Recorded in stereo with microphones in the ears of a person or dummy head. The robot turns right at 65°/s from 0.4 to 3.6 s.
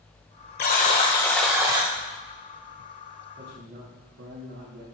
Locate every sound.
0.6 s a buzzer: 125° left, 1.3 m; by 1.9 s 150° right, 1.3 m
3.4 s a man speaking: 35° right (ahead or behind), 3 m; by 4.8 s 55° right (ahead or behind), 3 m